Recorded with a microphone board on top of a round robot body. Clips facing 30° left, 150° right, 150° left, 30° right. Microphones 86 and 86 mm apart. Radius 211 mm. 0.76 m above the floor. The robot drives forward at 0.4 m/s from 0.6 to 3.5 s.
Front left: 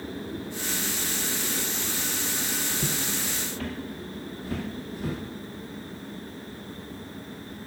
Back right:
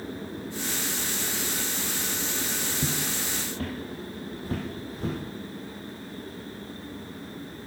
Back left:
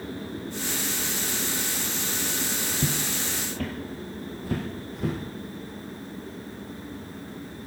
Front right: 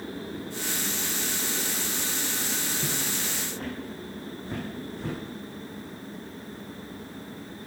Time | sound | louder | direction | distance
2.8 | footsteps | even, back left 3 dB | 150° left | 0.9 m